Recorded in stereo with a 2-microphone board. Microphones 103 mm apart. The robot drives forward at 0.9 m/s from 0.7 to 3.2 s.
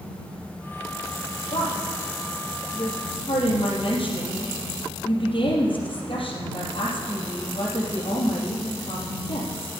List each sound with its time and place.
1.5 s a woman speaking: 70° left (ahead or behind), 3.5 m; by 9.7 s 55° left (ahead or behind), 4 m